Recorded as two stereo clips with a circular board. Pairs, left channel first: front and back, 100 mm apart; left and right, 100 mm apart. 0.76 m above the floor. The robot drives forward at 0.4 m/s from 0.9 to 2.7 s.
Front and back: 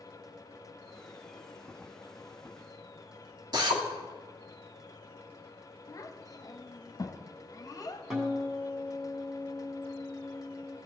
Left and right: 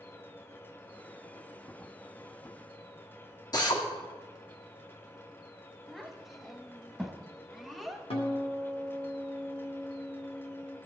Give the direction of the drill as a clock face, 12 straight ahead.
7 o'clock.